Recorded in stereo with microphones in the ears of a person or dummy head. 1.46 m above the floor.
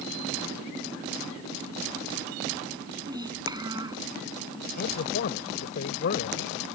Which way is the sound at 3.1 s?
20° right (ahead or behind).